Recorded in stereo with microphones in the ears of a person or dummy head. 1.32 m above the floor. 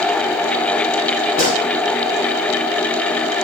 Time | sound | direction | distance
1.4 | a gunshot | 45° left (ahead or behind) | 3 m